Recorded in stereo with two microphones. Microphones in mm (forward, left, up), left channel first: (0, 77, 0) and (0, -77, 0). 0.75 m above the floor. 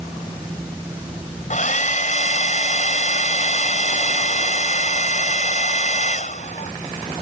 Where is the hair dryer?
55° left (ahead or behind).